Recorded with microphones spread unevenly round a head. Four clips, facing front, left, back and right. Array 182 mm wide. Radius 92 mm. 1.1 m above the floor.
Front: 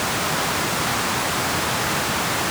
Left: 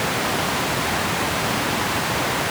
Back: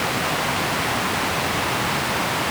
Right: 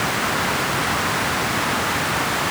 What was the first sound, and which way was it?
Only background noise.